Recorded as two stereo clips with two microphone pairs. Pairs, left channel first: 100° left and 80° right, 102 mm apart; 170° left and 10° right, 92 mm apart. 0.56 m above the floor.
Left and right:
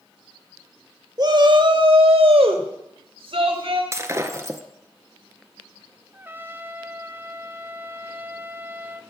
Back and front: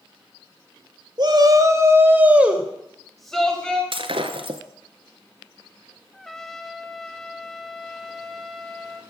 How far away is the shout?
About 1.8 m.